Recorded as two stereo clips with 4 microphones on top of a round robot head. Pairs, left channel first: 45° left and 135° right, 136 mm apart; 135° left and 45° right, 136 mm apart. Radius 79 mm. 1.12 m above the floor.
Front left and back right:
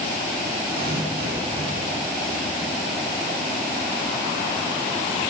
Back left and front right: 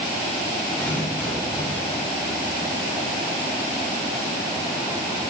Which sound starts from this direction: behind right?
Tearing paper, at 0.7 s.